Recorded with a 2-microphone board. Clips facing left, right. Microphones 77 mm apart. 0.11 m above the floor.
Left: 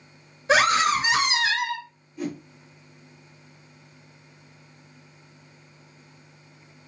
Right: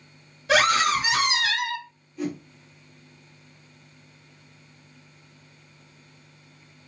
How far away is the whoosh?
About 2.5 m.